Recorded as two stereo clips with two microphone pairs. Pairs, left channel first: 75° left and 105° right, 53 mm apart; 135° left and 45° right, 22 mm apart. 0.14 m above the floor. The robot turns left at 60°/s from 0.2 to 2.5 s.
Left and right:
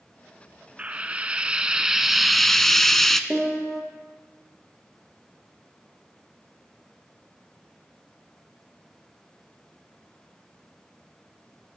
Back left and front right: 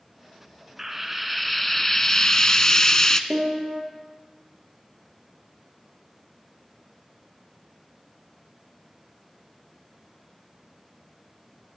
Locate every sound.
0.8 s frying: 95° right, 0.6 m; by 3.2 s 165° left, 0.6 m
3.3 s a piano: 25° right, 2.5 m